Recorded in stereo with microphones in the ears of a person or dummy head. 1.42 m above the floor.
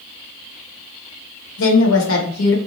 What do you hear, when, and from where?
1.6 s a woman speaking: 75° left (ahead or behind), 1.2 m